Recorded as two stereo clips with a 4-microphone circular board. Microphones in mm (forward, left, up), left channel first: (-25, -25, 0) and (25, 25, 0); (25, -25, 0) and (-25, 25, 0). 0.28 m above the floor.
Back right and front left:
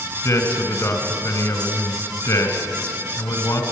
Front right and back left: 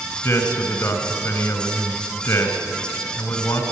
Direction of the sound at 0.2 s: 90° right.